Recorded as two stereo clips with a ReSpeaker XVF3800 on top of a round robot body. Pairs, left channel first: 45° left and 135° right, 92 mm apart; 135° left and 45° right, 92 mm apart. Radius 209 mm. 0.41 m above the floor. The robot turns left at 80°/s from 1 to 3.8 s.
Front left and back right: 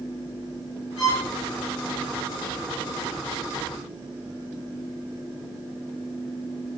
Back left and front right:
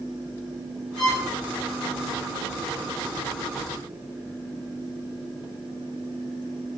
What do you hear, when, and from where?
1.0 s a violin: 50° left, 8 m; by 1.3 s 30° left, 8 m